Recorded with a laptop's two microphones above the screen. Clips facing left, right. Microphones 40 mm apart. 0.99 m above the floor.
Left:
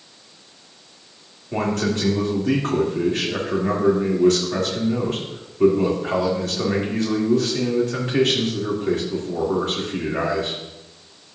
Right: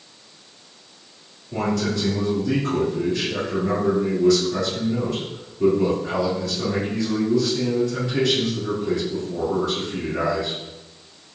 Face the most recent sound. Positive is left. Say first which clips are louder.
# left 1 dB
turn(degrees=55)  # may be behind; listen again after turning